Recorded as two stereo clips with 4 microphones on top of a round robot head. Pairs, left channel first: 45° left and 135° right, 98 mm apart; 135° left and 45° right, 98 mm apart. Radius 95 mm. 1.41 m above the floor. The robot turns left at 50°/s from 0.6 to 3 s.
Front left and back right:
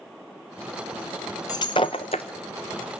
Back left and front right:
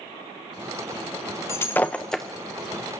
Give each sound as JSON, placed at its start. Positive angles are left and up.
{"t": 1.5, "sound": "breaking glass", "azimuth_deg": 85, "distance_m": 0.5}